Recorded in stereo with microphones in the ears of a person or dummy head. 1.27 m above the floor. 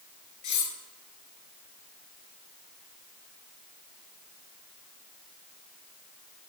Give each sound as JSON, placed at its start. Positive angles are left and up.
{"t": 0.4, "sound": "cutlery clinking", "side_deg": 30, "distance_m": 2.5}